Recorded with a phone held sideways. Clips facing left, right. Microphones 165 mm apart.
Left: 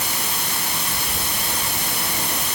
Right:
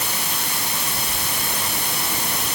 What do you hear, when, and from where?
Only background noise.